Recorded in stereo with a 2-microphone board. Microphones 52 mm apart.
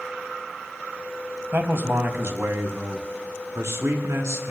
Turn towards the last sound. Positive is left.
turn(degrees=-65)  # may be behind; listen again after turning